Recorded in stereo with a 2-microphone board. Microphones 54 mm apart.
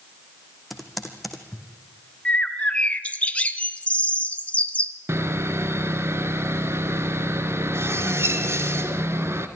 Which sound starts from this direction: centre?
Typing on a keyboard, at 0.7 s.